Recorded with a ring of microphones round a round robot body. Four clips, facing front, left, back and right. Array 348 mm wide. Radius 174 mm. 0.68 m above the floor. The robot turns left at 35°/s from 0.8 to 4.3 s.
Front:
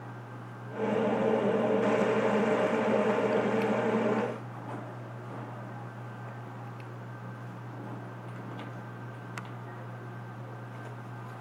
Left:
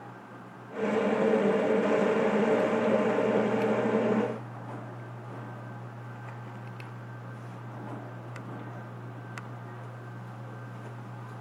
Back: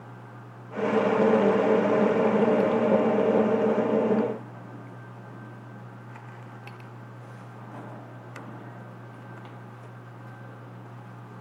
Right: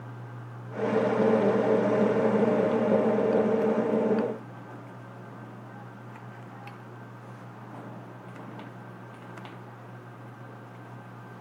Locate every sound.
Only background noise.